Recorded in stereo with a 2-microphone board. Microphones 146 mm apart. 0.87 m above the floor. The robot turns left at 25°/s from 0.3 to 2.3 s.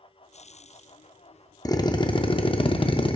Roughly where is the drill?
Left.